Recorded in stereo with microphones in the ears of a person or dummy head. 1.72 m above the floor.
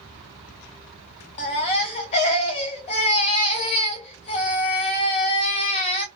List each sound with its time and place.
1.4 s a baby crying: 35° left (ahead or behind), 0.7 m